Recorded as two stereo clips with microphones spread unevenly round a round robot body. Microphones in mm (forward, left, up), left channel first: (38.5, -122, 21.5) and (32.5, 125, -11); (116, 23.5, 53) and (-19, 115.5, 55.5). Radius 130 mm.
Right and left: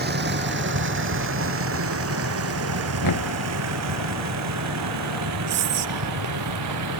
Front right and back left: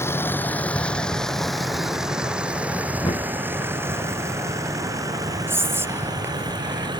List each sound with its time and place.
0.0 s a vehicle: 40° left; by 7.0 s 80° left
3.0 s knocking: 105° right
5.5 s whispering: 70° left